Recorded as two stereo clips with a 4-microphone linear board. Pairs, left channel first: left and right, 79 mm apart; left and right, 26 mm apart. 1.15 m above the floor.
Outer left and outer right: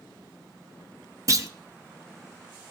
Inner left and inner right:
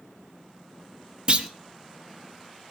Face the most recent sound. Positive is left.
turn(degrees=-40)  # may be behind; listen again after turning